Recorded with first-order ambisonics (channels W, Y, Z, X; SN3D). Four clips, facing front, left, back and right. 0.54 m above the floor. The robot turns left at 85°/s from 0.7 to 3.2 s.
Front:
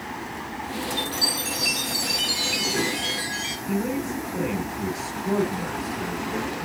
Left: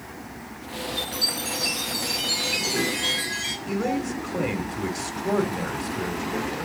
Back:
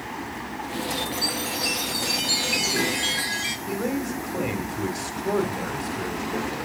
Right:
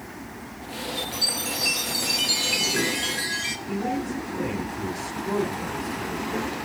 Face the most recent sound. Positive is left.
turn(degrees=125)